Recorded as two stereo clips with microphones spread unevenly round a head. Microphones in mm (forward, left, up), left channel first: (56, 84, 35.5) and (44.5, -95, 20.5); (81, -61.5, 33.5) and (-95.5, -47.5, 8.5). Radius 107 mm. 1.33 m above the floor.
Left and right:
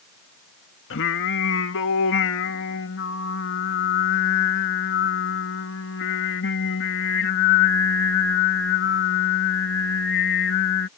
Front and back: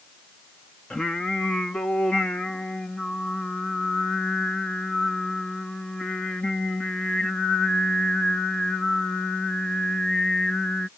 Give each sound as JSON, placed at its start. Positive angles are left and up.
{"t": 0.9, "sound": "singing", "azimuth_deg": 80}